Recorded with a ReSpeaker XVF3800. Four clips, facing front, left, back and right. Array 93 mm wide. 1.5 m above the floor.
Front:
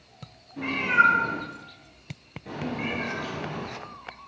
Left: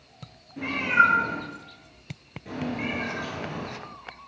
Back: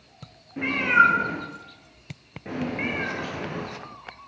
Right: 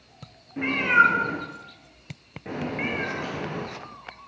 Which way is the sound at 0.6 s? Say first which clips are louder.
Right 2 dB, back 2 dB; 140° right.